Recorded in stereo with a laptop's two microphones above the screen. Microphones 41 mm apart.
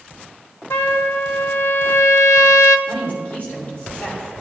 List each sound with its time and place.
0.7 s a trumpet: 70° left (ahead or behind), 0.7 m
2.9 s a woman speaking: 35° left (ahead or behind), 3 m